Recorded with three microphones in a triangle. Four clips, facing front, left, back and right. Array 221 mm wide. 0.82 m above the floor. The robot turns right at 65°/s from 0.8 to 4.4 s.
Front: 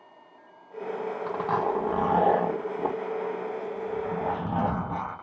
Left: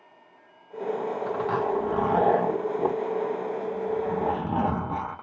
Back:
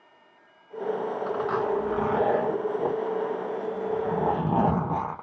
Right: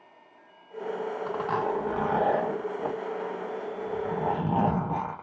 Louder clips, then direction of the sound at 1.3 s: Left 2 dB, front 1 dB; 20° right.